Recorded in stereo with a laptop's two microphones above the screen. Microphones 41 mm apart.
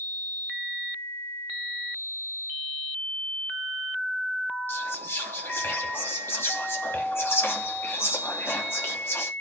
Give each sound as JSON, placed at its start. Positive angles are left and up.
{"t": 4.7, "sound": "whispering", "side_deg": 70, "distance_m": 2.5}